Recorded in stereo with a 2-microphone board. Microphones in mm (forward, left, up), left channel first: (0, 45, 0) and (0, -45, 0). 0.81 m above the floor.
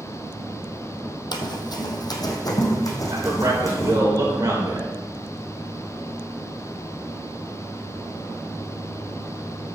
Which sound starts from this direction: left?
Running footsteps, at 1.3 s.